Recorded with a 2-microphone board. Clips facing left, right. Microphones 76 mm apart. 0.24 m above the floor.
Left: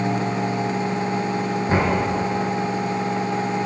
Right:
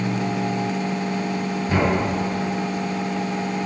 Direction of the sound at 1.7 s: 30° left (ahead or behind).